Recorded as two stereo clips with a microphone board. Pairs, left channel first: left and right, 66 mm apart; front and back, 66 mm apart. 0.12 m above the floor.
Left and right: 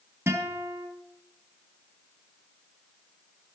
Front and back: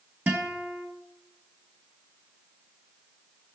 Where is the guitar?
125° right, 2 m.